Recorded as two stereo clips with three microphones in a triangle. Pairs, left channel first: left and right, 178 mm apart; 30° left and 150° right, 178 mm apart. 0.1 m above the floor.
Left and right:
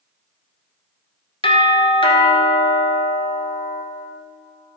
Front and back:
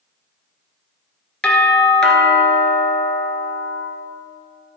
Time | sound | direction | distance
1.4 | a doorbell | 115° left | 1.7 m